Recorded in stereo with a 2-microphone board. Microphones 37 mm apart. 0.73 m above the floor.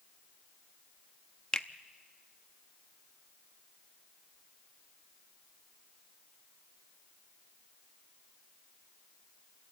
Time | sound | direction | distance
1.5 | a finger snap | 20° left (ahead or behind) | 0.6 m